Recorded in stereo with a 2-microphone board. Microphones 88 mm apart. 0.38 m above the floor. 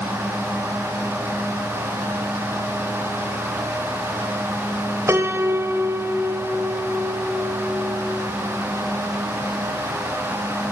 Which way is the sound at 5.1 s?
30° right (ahead or behind).